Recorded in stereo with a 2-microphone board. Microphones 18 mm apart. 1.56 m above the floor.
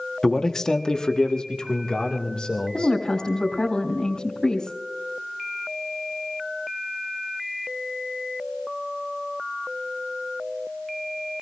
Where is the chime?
No chime in this recording.